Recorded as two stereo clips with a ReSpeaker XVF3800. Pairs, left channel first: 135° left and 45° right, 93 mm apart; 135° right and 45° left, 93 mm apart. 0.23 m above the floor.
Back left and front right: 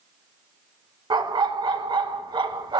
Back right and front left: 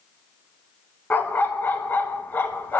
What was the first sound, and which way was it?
A dog barking, 65° right.